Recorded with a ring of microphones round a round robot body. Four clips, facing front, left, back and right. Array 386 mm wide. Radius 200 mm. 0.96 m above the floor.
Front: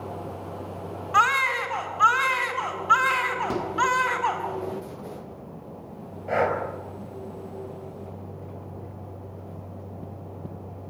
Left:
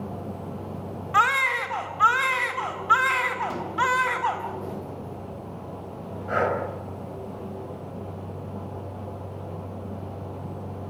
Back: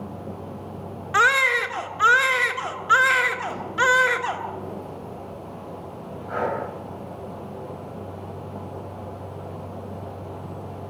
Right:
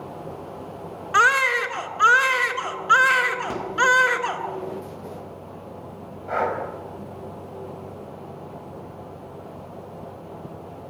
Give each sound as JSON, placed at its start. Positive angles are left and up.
{"t": 1.1, "sound": "a baby crying", "azimuth_deg": -140, "distance_m": 1.9}
{"t": 3.5, "sound": "a microwave", "azimuth_deg": -15, "distance_m": 1.6}
{"t": 6.3, "sound": "breathing", "azimuth_deg": 30, "distance_m": 5.0}